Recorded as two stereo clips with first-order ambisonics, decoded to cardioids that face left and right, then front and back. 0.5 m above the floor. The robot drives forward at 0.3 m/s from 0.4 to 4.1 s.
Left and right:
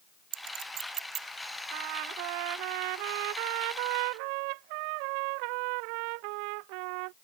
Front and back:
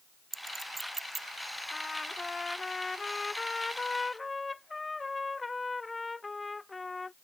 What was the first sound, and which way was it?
A clink, 100° right.